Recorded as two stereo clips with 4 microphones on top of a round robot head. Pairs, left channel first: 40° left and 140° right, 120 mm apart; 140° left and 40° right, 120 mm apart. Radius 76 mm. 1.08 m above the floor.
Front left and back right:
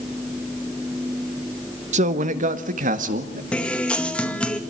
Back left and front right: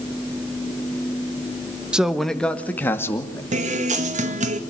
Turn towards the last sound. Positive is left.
turn(degrees=-45)